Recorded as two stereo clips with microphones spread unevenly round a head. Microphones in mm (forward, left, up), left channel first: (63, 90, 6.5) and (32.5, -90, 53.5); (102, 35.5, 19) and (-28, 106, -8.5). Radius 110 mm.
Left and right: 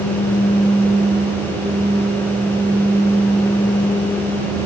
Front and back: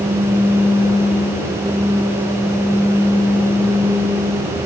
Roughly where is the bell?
No bell in this recording.